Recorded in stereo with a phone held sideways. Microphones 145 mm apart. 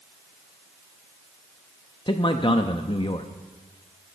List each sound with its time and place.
2.1 s a man speaking: 35° left (ahead or behind), 0.7 m